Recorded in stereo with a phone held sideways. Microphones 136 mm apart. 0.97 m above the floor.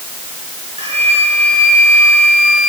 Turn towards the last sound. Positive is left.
turn(degrees=-45)  # may be behind; listen again after turning